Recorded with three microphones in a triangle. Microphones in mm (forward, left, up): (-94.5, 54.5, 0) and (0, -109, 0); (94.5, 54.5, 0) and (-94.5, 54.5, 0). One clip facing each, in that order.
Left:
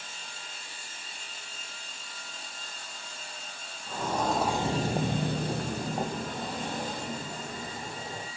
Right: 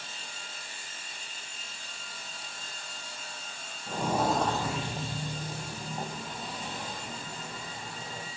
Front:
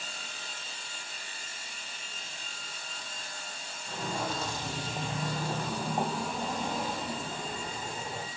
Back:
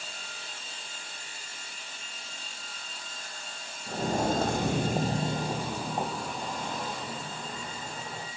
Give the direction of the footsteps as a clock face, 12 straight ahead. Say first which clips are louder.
Right 2 dB, back 7 dB; 4 o'clock.